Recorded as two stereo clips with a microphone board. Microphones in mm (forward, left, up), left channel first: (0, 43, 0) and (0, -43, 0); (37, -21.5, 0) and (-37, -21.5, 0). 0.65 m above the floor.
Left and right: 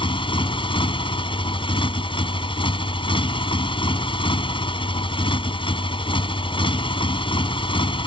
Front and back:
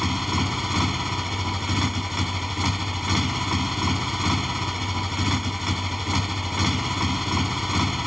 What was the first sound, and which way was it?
A motorcycle, 90° left.